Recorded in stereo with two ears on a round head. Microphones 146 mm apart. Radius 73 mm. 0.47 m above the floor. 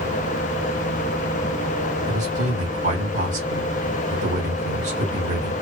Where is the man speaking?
45° right (ahead or behind), 1.7 m.